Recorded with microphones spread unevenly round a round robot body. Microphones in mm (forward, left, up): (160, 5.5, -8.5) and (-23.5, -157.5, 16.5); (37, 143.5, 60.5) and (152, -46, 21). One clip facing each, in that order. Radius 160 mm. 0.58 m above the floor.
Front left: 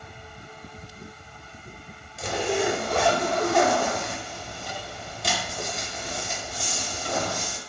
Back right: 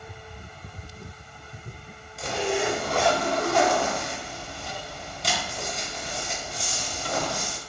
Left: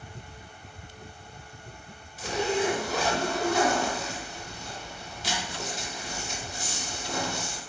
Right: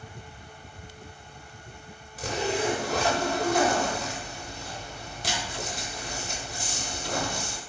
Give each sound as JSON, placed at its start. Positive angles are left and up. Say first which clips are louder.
{"t": 2.2, "sound": "a zipper", "louder": "front left 1 dB, left 1 dB", "azimuth_deg": -45, "distance_m": 0.8}